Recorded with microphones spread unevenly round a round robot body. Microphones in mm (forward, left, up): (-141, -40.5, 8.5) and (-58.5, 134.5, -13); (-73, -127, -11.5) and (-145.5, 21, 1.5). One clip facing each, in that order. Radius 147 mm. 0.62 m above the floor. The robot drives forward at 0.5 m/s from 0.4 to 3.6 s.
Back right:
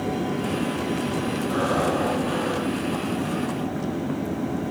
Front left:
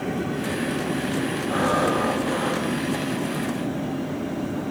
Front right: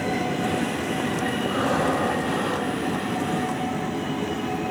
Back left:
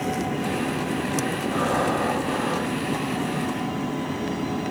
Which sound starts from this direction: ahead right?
Breathing, at 1.5 s.